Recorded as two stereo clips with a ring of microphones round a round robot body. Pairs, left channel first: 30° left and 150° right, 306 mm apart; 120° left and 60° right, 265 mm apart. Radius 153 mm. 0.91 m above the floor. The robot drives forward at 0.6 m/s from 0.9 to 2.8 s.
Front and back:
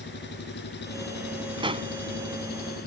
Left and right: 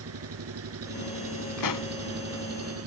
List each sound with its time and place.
0.0 s an engine running: 30° right
1.6 s a pop: 135° left; by 1.9 s 140° left